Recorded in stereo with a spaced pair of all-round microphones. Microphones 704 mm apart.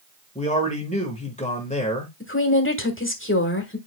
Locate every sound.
0.3 s a man speaking: 10° left (ahead or behind), 1.4 m
2.2 s a woman speaking: 15° left (ahead or behind), 1.4 m